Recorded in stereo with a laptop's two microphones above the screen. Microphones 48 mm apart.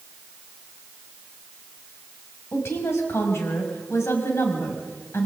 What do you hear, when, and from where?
2.5 s a woman speaking: 65° left (ahead or behind), 6 m